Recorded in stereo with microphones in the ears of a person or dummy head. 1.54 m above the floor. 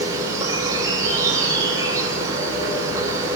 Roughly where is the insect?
Right.